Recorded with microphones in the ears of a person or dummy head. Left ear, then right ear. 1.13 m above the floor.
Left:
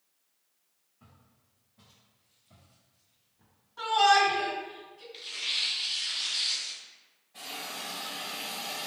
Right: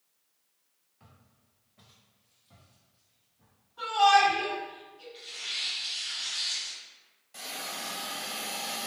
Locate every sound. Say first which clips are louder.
1.0 s footsteps: right 1 dB; 40° right (ahead or behind), 1.4 m; by 4.4 s 40° left (ahead or behind), 1.6 m
3.8 s a shout: right 1 dB; 75° left (ahead or behind), 2.0 m
5.1 s tearing paper: left 4 dB; 30° left (ahead or behind), 0.8 m
7.3 s a hiss: right 1 dB; 70° right (ahead or behind), 0.9 m